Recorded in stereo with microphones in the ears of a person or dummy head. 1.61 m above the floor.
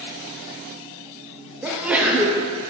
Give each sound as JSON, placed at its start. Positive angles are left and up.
{"t": 1.6, "sound": "a sneeze", "side_deg": -10, "distance_m": 0.5}